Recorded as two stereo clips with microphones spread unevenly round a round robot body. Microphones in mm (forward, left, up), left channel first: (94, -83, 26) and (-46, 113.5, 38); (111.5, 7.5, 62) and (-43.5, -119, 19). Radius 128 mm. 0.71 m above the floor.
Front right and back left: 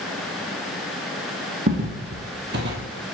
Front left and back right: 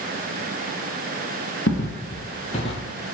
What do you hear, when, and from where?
1.7 s footsteps: 75° left, 1.6 m; by 2.9 s 100° left, 1.0 m